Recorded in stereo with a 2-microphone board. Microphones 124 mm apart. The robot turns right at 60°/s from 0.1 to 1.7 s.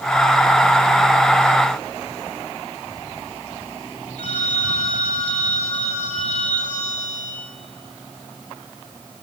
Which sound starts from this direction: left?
A phone ringing, at 4.2 s.